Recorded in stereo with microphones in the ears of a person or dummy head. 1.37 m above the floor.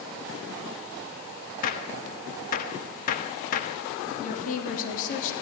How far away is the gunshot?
About 1.2 m.